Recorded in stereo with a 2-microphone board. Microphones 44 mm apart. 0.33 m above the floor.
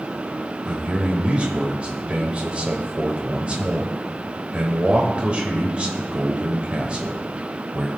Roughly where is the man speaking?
Right.